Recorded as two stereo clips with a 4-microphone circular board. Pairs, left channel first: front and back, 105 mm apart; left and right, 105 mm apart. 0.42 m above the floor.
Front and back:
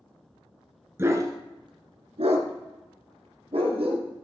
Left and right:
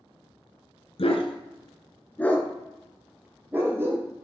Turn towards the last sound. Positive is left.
turn(degrees=-155)